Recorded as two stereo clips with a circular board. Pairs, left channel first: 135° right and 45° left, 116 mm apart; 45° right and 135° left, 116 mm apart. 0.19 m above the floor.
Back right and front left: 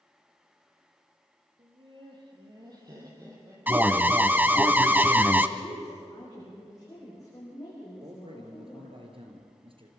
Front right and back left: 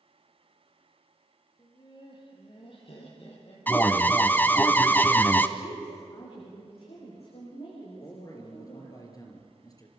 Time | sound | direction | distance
1.6 | laughter | 5° left | 5.5 m
3.7 | an alarm | 5° right | 0.9 m
5.6 | a woman speaking | 75° right | 8 m
8.0 | a man speaking | 10° left | 4 m